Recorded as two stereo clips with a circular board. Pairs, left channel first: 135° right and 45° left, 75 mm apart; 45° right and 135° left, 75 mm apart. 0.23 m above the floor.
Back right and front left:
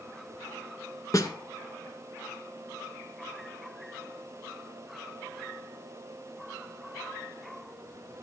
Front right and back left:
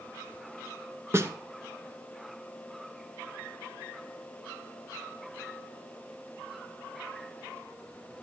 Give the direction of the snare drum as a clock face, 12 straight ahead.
6 o'clock.